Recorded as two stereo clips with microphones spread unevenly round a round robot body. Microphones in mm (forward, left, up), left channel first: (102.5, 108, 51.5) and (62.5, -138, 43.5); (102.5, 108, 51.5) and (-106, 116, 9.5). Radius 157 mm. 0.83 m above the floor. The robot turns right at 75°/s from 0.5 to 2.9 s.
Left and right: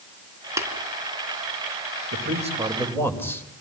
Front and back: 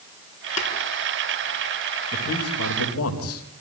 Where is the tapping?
20° right, 4 m; by 0.7 s 10° right, 4 m.